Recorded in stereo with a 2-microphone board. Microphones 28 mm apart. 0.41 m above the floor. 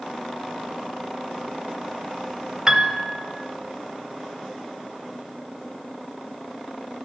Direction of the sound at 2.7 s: 25° right (ahead or behind).